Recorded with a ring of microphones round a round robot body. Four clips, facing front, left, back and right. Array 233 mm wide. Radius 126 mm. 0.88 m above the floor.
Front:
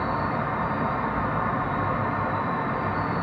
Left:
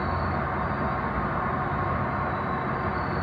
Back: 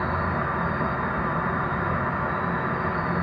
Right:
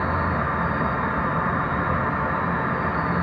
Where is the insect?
115° right, 1.4 m.